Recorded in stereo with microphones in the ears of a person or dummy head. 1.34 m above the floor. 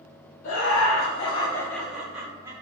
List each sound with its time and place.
0.4 s laughter: 70° left (ahead or behind), 0.7 m; by 2.5 s 20° right (ahead or behind), 1.1 m